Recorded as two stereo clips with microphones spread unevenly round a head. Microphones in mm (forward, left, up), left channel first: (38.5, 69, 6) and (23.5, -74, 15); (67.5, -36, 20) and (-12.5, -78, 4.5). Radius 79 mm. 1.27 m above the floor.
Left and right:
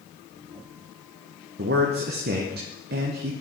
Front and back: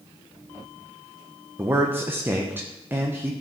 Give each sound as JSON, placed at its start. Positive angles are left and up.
{"t": 1.6, "sound": "a man speaking", "azimuth_deg": -90, "distance_m": 1.0}